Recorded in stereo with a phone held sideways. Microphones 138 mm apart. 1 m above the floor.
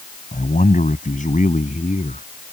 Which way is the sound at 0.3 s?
70° left (ahead or behind).